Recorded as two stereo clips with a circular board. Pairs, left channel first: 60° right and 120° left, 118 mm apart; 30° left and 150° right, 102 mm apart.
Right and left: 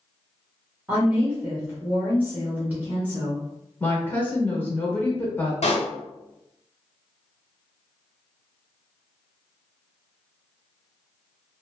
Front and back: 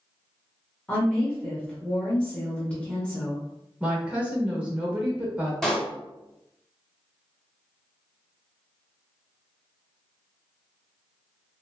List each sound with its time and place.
0.9 s a woman speaking: 80° left, 0.9 m
3.8 s a woman speaking: 100° right, 0.9 m
5.6 s a pop: 55° right, 0.9 m